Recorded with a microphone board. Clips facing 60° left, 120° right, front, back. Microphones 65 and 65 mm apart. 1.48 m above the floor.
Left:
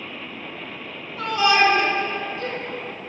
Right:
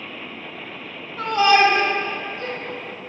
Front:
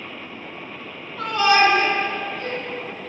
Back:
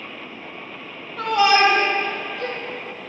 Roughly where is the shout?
Behind.